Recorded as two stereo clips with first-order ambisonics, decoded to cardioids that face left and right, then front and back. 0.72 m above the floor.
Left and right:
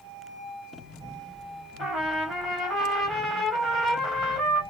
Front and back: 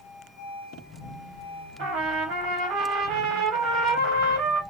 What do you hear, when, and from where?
1.8 s a trumpet: 165° right, 1.3 m